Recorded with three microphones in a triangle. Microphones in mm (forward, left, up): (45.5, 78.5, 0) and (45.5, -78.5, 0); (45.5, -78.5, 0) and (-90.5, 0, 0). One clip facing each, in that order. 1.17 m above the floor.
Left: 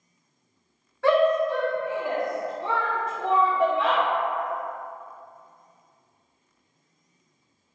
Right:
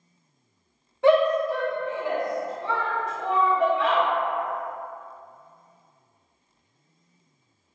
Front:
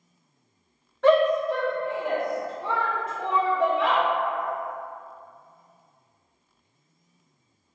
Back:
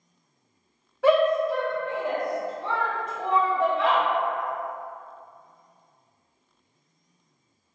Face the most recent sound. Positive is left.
turn(degrees=45)